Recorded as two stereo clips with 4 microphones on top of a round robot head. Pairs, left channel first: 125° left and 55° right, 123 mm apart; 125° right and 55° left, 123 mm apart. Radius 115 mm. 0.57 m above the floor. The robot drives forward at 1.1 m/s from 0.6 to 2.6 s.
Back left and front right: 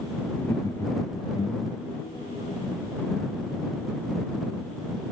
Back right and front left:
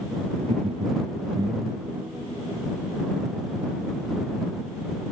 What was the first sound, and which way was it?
Laughter, 60° left.